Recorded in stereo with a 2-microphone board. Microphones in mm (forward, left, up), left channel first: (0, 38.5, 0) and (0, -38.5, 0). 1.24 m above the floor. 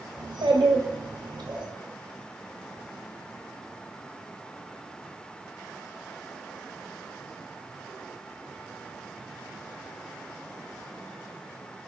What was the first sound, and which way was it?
A child speaking, 80° right.